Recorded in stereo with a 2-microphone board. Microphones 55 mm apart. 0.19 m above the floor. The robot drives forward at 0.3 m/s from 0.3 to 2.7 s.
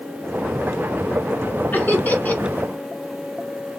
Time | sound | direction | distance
1.7 | laughter | 35° left (ahead or behind) | 1.4 m